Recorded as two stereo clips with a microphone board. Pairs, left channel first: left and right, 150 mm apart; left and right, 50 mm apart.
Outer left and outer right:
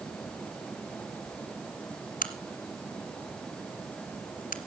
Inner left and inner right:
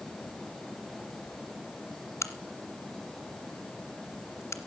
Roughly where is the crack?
Left.